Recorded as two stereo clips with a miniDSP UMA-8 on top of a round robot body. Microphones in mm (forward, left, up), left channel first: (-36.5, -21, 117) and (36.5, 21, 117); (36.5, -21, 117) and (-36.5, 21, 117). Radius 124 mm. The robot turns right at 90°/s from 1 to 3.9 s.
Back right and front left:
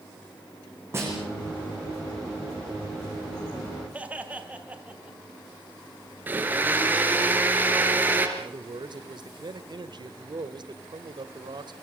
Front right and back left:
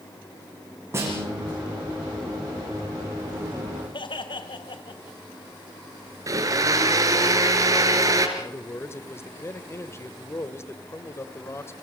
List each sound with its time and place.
0.9 s a snare drum: 90° left, 7.5 m; by 1.6 s 140° left, 7.5 m
3.9 s laughter: 45° right, 2.5 m
6.3 s a blender: 100° left, 3.5 m
8.4 s a man speaking: 25° left, 1.8 m